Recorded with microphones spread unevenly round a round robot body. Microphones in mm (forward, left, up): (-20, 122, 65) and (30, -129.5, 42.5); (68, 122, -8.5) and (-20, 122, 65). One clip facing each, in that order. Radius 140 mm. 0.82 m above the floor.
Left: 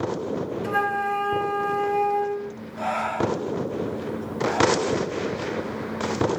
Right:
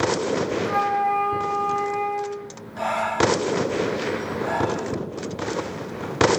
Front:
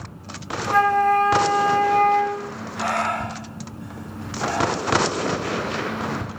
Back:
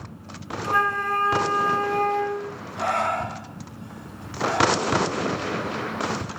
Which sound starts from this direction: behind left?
A flute, at 0.6 s.